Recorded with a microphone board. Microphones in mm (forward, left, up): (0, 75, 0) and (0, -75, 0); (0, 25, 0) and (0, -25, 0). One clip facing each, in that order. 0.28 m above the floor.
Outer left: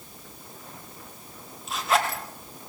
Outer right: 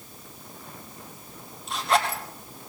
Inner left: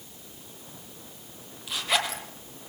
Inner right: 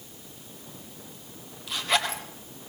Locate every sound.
1.7 s a zipper: centre (ahead or behind), 4 m